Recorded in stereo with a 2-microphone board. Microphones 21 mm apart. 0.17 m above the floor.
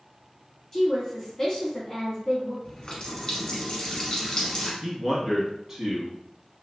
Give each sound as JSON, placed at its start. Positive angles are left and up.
{"t": 0.7, "sound": "a woman speaking", "side_deg": 20, "distance_m": 1.8}
{"t": 2.6, "sound": "a running tap", "side_deg": 40, "distance_m": 1.1}
{"t": 4.8, "sound": "a man speaking", "side_deg": -20, "distance_m": 1.2}